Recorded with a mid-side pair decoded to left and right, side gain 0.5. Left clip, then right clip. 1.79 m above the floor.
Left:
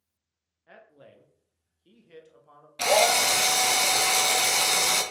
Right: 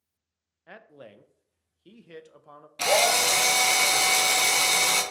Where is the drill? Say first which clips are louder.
Left 1 dB; straight ahead, 0.8 m.